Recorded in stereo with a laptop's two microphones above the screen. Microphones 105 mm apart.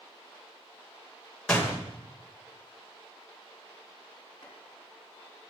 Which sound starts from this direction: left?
Chopping, at 4.4 s.